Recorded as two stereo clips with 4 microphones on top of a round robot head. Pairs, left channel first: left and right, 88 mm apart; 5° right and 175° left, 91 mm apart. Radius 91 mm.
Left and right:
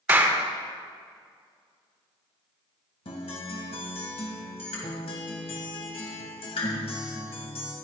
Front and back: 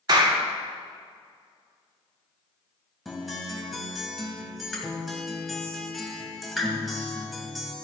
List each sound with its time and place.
0.1 s a clap: 155° right, 1.7 m
3.0 s a guitar: 85° left, 2.5 m